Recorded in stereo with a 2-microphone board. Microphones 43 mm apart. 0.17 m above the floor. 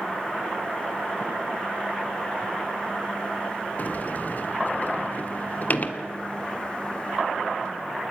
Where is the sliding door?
45° left (ahead or behind), 1.5 m.